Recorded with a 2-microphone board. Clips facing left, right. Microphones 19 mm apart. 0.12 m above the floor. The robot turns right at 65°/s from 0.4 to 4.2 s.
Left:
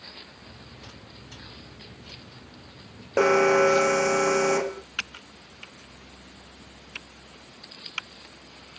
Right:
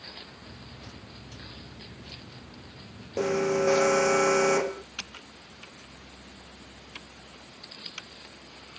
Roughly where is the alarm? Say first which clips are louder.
Left 7 dB; left.